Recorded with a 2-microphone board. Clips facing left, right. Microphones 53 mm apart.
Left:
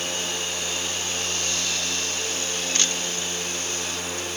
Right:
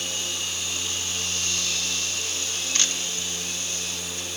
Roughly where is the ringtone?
I don't hear a ringtone.